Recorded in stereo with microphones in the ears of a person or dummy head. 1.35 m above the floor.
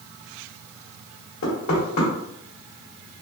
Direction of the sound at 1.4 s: 75° left (ahead or behind).